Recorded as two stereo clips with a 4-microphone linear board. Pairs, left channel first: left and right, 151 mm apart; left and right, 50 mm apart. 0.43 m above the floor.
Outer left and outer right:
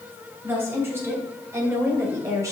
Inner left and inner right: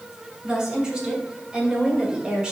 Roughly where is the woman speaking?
Centre.